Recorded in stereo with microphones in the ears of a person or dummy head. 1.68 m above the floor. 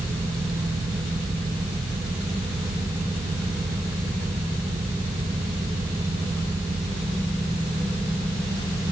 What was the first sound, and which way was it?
Only background noise.